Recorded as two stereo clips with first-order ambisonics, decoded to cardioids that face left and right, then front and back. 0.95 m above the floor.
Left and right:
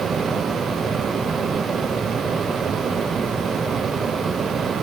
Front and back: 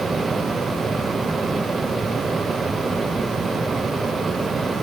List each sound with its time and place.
Only background noise.